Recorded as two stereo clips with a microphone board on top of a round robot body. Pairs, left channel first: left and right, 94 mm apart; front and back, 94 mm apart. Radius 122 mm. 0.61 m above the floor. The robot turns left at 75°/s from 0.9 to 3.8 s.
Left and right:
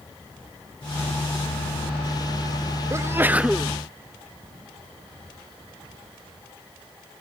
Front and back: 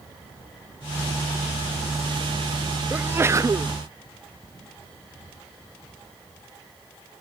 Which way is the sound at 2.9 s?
115° right.